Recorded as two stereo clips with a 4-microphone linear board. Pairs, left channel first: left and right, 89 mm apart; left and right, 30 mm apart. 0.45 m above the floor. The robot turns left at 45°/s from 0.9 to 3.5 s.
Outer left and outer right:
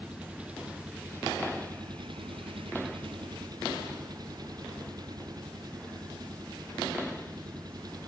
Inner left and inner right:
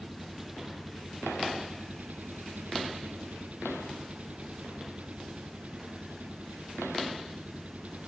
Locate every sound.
0.0 s an engine running: 15° right; by 8.1 s 130° right